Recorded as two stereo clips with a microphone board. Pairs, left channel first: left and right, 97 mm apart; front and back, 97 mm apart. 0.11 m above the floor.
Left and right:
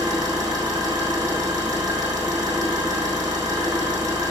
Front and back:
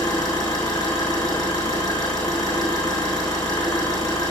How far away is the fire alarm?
No fire alarm in this recording.